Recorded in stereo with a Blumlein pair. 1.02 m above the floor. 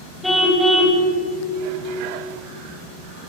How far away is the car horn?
About 3.5 m.